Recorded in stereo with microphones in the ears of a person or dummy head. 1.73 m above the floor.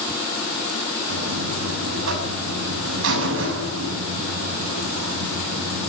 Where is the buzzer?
75° right (ahead or behind), 6.5 m.